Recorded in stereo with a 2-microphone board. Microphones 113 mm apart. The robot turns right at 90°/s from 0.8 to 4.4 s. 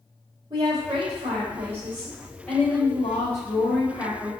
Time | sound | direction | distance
0.5 | a woman speaking | 140° right | 0.8 m